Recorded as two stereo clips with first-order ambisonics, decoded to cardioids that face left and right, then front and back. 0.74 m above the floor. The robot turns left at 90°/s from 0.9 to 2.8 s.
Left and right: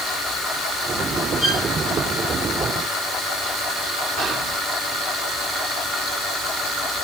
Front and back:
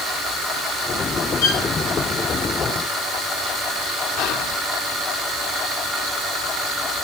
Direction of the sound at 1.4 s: 5° right.